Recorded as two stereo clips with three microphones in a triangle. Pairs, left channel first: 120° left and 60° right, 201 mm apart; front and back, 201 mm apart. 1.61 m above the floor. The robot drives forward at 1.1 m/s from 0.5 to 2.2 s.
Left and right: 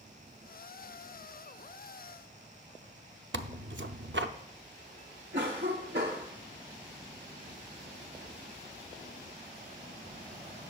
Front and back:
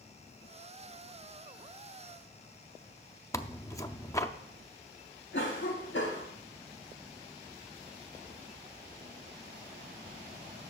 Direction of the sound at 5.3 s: 25° right.